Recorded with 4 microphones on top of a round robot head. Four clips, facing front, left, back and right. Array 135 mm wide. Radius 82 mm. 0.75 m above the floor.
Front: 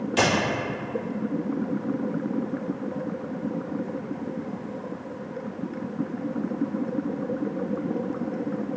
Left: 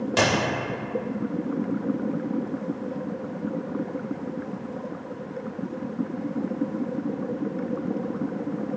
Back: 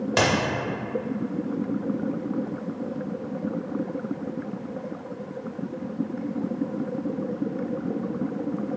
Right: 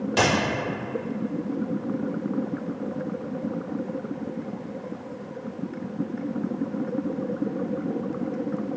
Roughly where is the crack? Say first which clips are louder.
Even, even; behind.